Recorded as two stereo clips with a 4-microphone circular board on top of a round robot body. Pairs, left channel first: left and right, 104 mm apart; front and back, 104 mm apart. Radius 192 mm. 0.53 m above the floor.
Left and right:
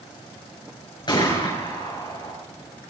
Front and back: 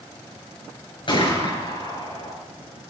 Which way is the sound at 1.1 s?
40° left.